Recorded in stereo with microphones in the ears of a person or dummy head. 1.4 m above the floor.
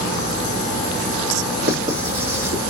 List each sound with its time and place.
1.6 s writing: 50° right (ahead or behind), 1.0 m